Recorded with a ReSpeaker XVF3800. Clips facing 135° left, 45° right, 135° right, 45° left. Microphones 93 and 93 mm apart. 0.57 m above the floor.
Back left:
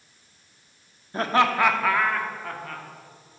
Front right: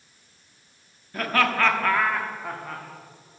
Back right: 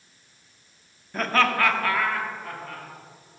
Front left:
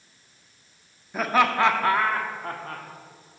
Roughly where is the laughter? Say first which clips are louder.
Back left 2 dB, front left 1 dB; behind left.